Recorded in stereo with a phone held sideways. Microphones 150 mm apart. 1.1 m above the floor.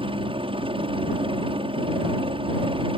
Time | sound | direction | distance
0.0 | a helicopter | 35° right (ahead or behind) | ?